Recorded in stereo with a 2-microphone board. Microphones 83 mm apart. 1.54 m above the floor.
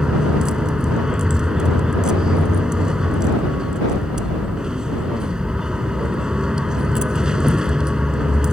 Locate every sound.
0.0 s a vehicle: 10° right (ahead or behind)